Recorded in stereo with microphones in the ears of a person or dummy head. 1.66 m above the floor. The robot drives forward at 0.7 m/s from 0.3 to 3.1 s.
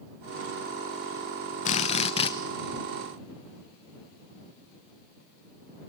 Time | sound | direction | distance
1.6 | a drill | 40° left (ahead or behind) | 1.0 m